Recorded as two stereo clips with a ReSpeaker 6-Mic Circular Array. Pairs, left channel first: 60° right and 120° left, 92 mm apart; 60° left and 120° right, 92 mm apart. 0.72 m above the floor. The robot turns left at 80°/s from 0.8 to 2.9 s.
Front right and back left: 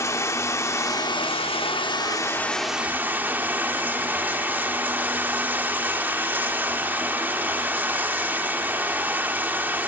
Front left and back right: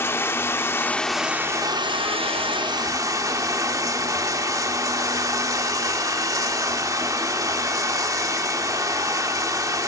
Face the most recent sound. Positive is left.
turn(degrees=-170)